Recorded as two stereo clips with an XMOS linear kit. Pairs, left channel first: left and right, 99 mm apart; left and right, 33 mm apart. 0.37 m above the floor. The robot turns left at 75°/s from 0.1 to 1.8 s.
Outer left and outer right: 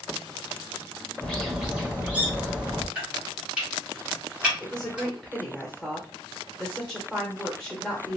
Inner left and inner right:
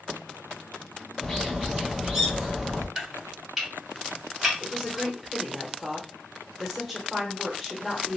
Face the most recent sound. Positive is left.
turn(degrees=5)  # may be behind; listen again after turning